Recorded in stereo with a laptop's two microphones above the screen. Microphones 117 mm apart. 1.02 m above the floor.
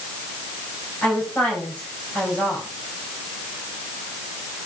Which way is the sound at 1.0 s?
15° left (ahead or behind).